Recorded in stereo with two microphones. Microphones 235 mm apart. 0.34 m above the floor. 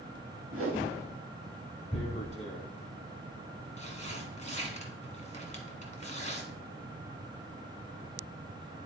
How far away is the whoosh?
About 2.5 m.